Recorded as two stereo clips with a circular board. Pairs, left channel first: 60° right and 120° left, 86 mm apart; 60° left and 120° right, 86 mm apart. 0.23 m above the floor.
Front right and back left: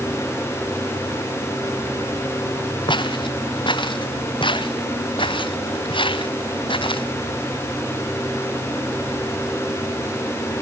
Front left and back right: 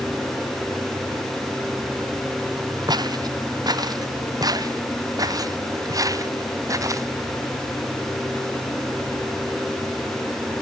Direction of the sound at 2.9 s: 80° right.